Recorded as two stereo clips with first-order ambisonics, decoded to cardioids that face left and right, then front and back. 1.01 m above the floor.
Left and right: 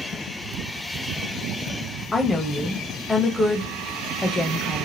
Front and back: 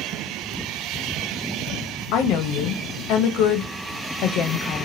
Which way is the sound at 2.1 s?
10° left.